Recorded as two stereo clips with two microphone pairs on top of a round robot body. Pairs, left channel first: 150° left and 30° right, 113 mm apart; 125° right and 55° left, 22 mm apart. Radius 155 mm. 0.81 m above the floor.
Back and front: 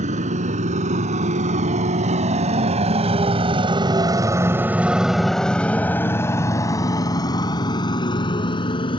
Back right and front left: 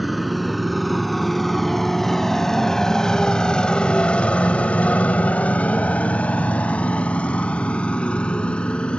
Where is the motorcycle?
35° right; by 9.0 s 165° right.